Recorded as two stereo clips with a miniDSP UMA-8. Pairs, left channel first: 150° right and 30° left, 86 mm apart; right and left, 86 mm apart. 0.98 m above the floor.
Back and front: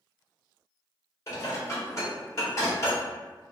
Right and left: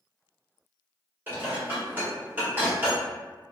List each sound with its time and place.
1.3 s dishes clattering: 155° left, 1.1 m